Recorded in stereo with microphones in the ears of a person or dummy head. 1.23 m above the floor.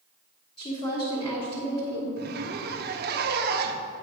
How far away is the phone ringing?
I don't hear a phone ringing.